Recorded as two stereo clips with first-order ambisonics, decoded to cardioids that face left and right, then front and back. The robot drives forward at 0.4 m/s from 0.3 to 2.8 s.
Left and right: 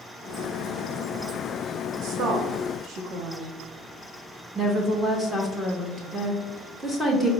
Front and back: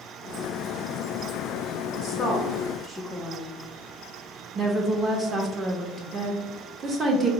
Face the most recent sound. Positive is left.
turn(degrees=-165)